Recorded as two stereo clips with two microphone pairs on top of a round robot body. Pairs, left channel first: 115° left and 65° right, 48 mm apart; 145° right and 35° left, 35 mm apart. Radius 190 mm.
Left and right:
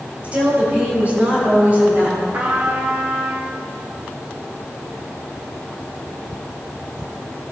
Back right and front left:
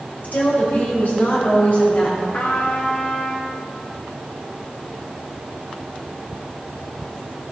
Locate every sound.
0.2 s a woman speaking: 125° right, 4 m; by 2.2 s 115° right, 5 m
2.3 s a trumpet: 110° right, 2.0 m